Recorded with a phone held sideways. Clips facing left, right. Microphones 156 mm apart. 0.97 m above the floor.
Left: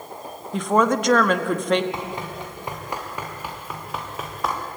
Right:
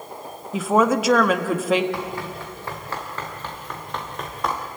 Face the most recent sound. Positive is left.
turn(degrees=0)  # may be behind; listen again after turning